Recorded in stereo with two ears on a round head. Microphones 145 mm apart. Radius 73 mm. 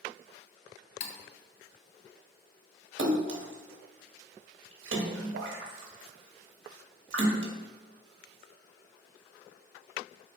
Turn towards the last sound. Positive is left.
turn(degrees=-85)